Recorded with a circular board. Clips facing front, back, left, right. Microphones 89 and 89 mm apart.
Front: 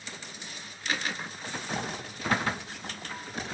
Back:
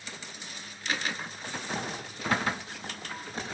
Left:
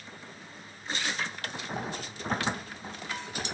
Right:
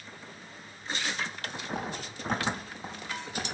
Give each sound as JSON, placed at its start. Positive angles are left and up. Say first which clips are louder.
{"t": 1.7, "sound": "footsteps", "louder": "front 1 dB, right 1 dB", "azimuth_deg": -120, "distance_m": 5.5}